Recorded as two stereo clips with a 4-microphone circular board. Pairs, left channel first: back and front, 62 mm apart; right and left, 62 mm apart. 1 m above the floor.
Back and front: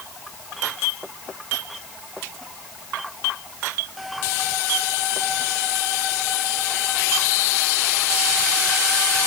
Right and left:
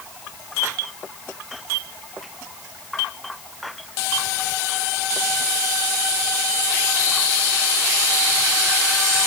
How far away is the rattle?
No rattle in this recording.